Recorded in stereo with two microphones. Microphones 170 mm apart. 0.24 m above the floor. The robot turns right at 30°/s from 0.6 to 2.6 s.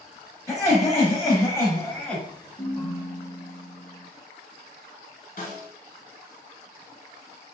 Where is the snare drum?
50° left (ahead or behind), 1.3 m.